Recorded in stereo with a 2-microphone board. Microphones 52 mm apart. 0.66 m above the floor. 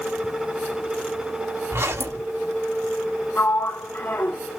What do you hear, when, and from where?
1.7 s a zipper: 55° right (ahead or behind), 3 m
3.4 s a sliding door: 40° left (ahead or behind), 0.7 m